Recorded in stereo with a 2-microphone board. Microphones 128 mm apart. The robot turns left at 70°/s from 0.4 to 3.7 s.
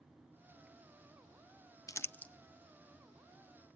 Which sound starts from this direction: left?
Crumpling, at 1.9 s.